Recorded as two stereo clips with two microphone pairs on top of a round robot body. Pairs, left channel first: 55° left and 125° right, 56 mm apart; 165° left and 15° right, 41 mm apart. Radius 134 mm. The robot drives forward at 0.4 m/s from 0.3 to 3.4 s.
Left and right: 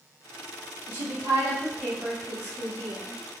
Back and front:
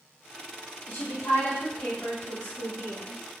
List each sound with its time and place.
0.9 s a woman speaking: 160° right, 0.7 m; by 3.2 s 170° right, 1.6 m